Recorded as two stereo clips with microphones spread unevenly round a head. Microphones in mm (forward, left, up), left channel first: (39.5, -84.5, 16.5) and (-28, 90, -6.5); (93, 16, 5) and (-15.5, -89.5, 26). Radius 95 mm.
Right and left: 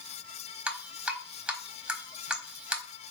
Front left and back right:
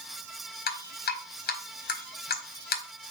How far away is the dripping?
About 1.2 m.